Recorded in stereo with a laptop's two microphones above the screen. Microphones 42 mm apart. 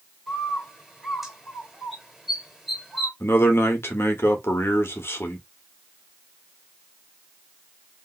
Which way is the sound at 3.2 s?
75° left (ahead or behind).